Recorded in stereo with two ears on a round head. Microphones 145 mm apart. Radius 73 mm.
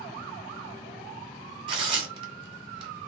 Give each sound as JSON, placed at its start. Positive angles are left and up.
{"t": 1.7, "sound": "tearing paper", "side_deg": -30, "distance_m": 1.5}